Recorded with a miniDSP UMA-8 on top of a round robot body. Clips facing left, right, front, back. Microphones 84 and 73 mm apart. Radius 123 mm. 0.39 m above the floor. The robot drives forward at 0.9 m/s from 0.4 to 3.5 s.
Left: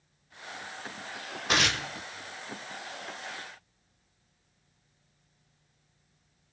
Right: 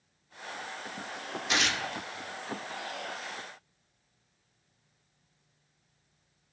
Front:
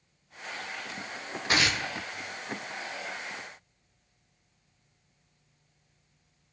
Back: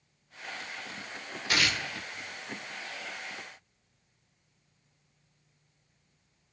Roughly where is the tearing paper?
Ahead left.